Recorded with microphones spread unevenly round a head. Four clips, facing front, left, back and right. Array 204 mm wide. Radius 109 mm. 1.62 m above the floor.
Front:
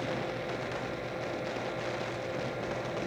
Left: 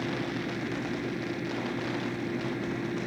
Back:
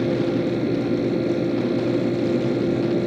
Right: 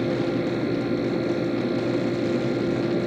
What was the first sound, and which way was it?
A fan, 150° right.